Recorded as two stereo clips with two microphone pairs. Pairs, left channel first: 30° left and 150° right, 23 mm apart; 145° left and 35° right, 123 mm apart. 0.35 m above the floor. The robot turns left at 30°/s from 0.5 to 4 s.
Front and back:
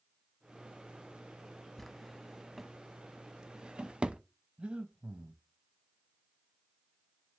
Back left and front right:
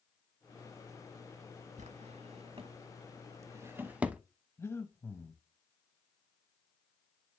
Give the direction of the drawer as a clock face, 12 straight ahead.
2 o'clock.